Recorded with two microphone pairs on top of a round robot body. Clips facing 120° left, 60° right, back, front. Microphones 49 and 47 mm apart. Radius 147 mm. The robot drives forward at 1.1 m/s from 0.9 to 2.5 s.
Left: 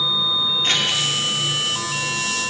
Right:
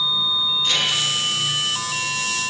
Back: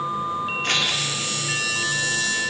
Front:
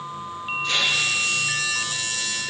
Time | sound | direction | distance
0.6 | scissors | 155° left | 2.0 m